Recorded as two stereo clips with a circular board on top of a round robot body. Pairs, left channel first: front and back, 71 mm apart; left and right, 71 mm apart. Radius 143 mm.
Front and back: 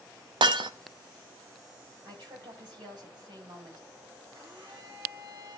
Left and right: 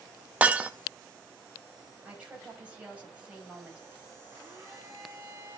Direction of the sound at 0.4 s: 165° right.